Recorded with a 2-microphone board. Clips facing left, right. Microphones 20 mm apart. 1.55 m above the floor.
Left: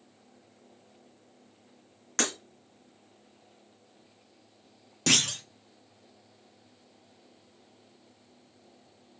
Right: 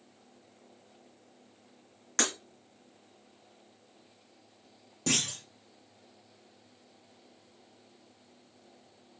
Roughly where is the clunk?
Left.